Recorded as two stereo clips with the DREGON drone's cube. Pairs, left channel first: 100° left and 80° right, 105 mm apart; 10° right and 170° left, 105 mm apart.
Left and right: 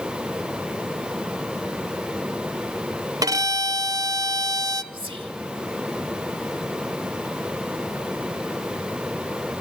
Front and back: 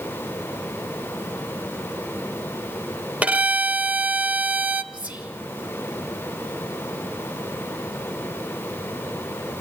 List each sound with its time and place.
3.2 s a violin: 115° right, 0.9 m
4.9 s whispering: 115° right, 3.5 m